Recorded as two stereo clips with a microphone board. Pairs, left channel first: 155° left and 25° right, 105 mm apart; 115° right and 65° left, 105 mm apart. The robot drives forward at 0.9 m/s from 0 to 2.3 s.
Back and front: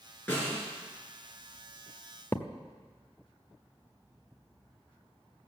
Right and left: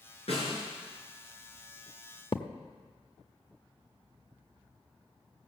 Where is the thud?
135° right, 0.8 m.